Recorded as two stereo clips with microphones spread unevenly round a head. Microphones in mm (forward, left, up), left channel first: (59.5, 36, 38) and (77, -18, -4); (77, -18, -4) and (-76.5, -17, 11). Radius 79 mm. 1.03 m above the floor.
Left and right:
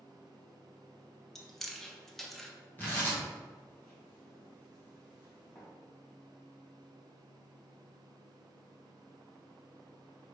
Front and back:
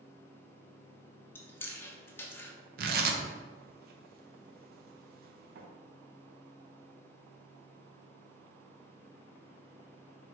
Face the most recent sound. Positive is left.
turn(degrees=-160)